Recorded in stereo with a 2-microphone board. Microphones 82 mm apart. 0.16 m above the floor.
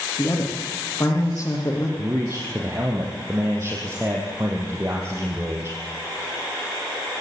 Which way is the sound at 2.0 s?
30° right (ahead or behind).